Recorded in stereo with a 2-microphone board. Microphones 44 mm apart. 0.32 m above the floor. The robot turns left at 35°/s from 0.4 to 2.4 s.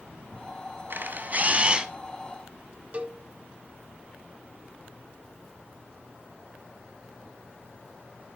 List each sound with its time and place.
0.9 s a camera shutter: 125° right, 0.6 m; by 1.9 s 160° right, 0.6 m
2.9 s a cowbell: 35° right (ahead or behind), 0.8 m